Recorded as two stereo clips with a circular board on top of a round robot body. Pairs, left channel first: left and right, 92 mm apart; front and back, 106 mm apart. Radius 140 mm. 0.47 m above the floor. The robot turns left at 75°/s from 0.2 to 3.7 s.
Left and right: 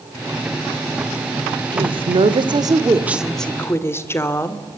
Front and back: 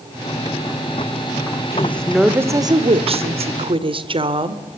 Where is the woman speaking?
60° right, 1.9 m; by 4.6 s 150° left, 1.9 m.